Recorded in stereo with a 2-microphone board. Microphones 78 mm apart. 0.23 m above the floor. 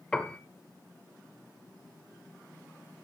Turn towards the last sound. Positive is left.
turn(degrees=10)  # may be behind; listen again after turning